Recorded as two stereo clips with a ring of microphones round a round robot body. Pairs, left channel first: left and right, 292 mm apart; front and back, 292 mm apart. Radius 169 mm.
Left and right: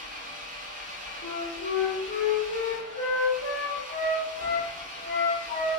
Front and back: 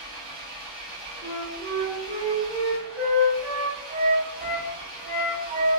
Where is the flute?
135° left, 1.2 m.